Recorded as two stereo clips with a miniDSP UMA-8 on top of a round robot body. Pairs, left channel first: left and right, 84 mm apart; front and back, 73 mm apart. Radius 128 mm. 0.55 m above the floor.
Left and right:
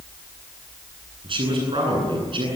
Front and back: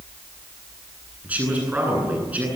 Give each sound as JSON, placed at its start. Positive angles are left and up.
{"t": 1.2, "sound": "a man speaking", "azimuth_deg": -110, "distance_m": 10.0}